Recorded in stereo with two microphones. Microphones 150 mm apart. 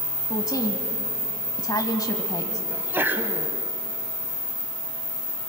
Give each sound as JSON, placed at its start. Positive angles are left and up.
{"t": 0.3, "sound": "a woman speaking", "side_deg": 25, "distance_m": 1.0}
{"t": 2.7, "sound": "a sneeze", "side_deg": -15, "distance_m": 1.0}